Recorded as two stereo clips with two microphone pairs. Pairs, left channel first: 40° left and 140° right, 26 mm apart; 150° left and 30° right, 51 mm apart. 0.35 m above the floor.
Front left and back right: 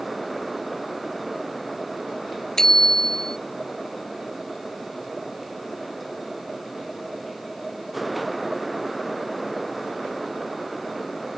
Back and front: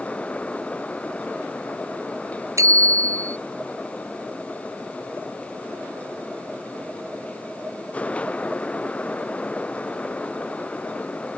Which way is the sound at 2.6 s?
35° right.